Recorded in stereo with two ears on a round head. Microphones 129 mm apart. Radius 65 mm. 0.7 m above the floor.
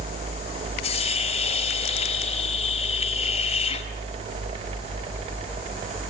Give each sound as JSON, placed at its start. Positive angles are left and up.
{"t": 0.8, "sound": "a hiss", "side_deg": 45, "distance_m": 5.0}